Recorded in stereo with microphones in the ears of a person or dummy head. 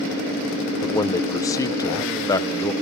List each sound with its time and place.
0.8 s a man speaking: 10° left (ahead or behind), 0.9 m